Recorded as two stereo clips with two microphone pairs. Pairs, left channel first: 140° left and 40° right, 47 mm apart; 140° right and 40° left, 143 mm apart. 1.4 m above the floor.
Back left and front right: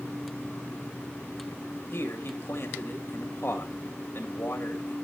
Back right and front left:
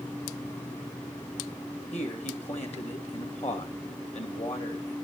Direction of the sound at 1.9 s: 175° left.